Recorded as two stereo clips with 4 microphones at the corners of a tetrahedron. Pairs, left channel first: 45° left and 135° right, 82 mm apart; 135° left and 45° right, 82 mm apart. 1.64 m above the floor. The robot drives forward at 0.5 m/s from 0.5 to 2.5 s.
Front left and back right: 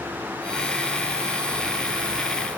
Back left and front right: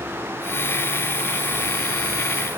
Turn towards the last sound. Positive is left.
No sound to turn to.